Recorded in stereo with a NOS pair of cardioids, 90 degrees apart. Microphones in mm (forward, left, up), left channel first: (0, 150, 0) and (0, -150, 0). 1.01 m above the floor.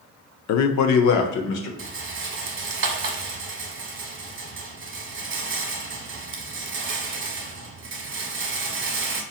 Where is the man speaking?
60° left, 0.5 m; by 1.7 s 80° left, 1.1 m.